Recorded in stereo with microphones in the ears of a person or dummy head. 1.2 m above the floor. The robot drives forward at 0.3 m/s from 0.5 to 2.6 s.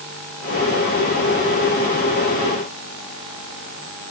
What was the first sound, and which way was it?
Only background noise.